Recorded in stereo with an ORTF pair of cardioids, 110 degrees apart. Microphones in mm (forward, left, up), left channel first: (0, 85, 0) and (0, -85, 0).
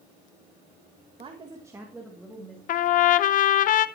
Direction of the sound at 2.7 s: 55° left.